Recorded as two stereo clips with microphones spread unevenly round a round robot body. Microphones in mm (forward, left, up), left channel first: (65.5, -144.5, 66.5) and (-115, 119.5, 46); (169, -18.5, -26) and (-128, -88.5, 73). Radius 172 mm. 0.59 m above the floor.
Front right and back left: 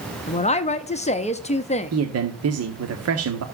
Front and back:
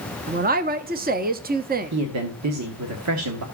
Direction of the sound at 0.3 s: 100° right.